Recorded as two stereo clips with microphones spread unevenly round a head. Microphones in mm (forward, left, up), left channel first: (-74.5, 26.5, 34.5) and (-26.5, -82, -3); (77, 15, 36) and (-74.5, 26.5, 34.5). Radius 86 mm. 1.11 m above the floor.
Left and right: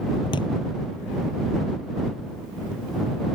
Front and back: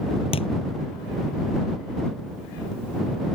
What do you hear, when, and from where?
0.3 s a thud: 50° left